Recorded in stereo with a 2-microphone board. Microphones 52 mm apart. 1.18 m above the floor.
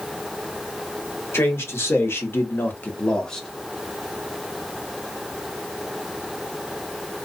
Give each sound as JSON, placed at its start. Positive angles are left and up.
{"t": 1.3, "sound": "a man speaking", "side_deg": 50, "distance_m": 1.3}